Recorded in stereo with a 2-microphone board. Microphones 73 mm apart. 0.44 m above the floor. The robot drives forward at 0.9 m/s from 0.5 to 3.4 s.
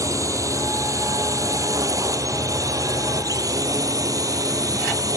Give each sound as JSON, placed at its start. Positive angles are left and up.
{"t": 0.0, "sound": "a drone", "side_deg": -45}